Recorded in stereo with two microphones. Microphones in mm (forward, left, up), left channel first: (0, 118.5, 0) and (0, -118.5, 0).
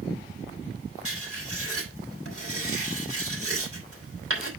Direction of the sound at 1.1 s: 65° right (ahead or behind).